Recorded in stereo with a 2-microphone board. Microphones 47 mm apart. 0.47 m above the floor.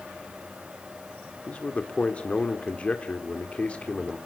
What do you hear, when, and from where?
1.5 s a man speaking: 30° left (ahead or behind), 1.4 m